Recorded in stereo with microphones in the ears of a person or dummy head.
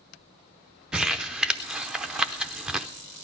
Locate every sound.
0.9 s crumpling: 5° right (ahead or behind), 0.6 m